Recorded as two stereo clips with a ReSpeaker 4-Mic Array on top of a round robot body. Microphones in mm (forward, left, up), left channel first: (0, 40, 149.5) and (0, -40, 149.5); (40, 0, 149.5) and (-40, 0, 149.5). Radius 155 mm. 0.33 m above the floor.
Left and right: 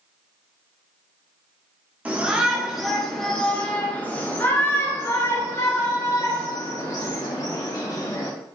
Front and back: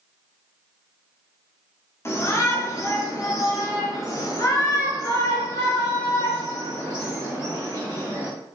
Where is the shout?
30° right, 1.6 m; by 8.3 s 55° left, 3.5 m.